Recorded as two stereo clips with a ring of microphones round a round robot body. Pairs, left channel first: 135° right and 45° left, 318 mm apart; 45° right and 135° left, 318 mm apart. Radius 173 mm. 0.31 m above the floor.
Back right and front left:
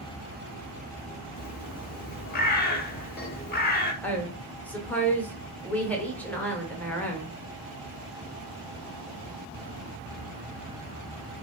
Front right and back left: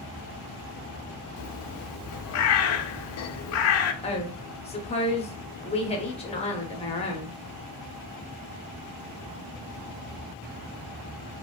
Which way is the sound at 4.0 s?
60° right.